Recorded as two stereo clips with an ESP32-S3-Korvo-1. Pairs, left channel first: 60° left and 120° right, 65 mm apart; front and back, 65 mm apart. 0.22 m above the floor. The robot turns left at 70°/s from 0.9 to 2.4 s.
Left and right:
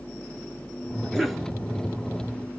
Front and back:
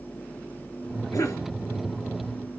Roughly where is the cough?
Ahead.